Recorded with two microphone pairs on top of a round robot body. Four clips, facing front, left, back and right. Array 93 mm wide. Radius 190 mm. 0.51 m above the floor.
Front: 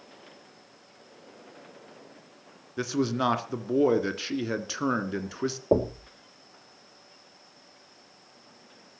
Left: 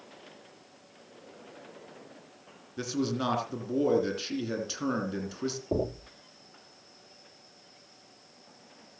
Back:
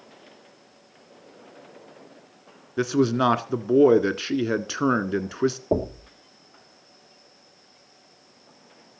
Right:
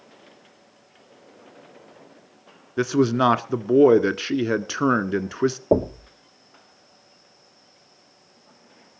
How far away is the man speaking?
About 1.8 m.